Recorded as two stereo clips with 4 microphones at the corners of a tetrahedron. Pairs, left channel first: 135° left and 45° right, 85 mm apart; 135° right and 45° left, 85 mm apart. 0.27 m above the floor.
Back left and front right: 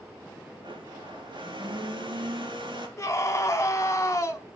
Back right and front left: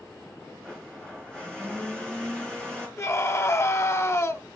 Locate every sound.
0.6 s a blender: 55° right, 3.5 m
3.0 s a scream: 175° left, 1.4 m